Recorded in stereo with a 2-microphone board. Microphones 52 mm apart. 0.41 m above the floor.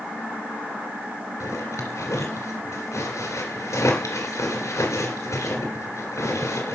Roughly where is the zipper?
Left.